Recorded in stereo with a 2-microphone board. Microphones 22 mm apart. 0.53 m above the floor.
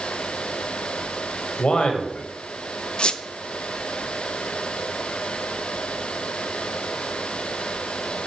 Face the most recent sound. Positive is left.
turn(degrees=55)  # may be behind; listen again after turning